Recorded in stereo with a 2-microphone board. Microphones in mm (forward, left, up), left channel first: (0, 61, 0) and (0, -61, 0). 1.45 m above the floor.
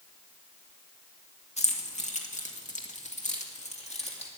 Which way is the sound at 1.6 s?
65° left (ahead or behind).